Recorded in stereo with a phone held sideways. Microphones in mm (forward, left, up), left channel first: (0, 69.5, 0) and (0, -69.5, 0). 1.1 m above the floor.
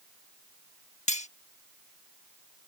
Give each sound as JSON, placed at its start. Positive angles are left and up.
{"t": 1.1, "sound": "cutlery clinking", "side_deg": 50}